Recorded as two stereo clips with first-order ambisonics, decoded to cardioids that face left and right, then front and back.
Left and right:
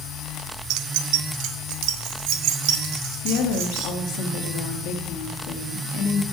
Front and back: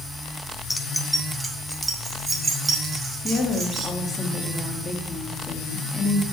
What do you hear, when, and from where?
0.7 s keys jangling: 80° right, 0.5 m; by 3.9 s 105° right, 2.5 m
3.2 s a woman speaking: 75° left, 1.6 m